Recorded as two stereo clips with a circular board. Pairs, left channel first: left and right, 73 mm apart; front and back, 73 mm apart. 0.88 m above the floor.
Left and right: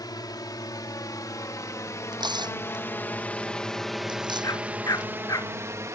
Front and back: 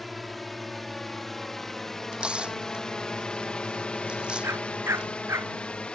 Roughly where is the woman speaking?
No woman speaking in this recording.